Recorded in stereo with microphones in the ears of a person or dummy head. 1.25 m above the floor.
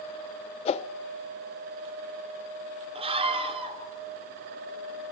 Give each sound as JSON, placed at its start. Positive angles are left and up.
{"t": 0.7, "sound": "a whoosh", "side_deg": 30, "distance_m": 1.0}
{"t": 3.0, "sound": "a scream", "side_deg": -35, "distance_m": 4.5}